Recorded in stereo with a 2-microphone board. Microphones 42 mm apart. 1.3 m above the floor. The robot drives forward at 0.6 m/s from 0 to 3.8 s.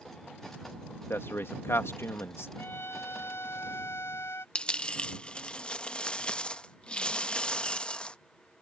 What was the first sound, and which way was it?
A man speaking, 70° left (ahead or behind).